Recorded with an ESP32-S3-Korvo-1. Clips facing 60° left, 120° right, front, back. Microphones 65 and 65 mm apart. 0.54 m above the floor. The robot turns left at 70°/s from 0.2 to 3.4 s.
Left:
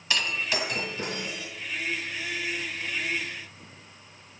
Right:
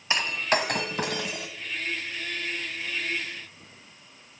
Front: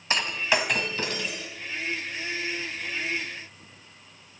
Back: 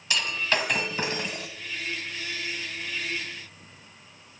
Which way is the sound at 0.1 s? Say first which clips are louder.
Right 3 dB, front 2 dB; 55° right.